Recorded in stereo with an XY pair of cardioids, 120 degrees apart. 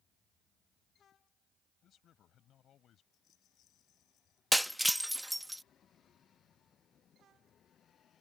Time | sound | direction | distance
1.8 | a man speaking | 55° left | ?
3.1 | a rattle | 65° left | ?
4.5 | breaking glass | straight ahead | ?